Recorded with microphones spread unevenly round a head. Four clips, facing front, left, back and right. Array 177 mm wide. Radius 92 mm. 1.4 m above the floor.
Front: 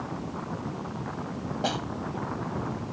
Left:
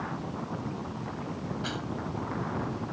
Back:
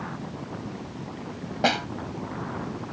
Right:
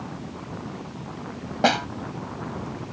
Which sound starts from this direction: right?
A snare drum, at 1.6 s.